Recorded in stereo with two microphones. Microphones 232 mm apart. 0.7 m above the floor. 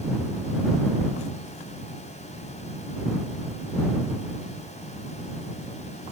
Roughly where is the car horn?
I don't hear a car horn.